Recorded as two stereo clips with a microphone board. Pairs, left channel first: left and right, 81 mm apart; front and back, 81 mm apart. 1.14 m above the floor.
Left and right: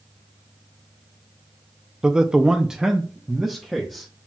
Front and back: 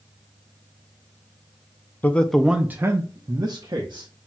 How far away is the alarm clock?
No alarm clock in this recording.